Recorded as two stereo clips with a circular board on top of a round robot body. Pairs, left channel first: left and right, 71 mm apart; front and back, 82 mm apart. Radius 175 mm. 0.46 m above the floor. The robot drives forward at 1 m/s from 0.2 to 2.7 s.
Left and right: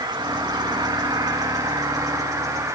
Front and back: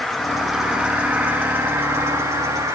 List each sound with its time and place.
0.0 s an insect: 85° right, 2.5 m; by 2.8 s 130° right, 3.5 m